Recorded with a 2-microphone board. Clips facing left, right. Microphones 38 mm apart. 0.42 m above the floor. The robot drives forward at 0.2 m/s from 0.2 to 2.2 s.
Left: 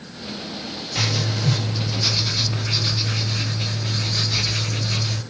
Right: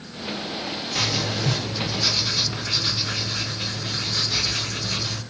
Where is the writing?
15° right (ahead or behind), 1.7 m.